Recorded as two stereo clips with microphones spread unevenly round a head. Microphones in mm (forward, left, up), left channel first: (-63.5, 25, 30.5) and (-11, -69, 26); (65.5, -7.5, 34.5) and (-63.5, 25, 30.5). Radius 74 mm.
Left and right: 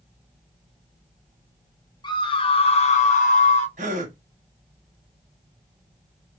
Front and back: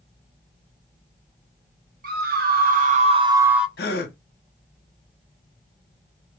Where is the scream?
170° left, 1.0 m; by 3.7 s 80° left, 0.6 m.